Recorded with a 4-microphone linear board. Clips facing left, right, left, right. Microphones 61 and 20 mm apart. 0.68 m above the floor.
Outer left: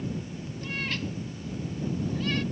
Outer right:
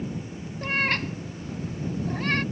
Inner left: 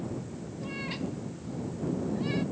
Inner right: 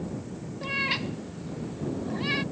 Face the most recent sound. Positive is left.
turn(degrees=-45)  # may be behind; listen again after turning